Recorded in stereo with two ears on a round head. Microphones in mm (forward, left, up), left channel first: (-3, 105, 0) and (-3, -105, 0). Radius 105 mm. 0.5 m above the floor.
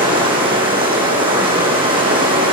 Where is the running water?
25° right (ahead or behind), 9.5 m.